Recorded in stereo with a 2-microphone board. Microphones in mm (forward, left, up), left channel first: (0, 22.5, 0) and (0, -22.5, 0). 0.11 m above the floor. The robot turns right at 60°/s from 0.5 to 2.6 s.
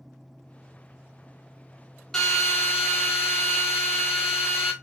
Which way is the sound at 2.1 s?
10° left (ahead or behind).